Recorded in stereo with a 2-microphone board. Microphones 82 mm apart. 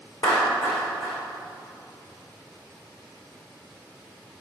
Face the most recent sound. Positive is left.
turn(degrees=55)  # may be behind; listen again after turning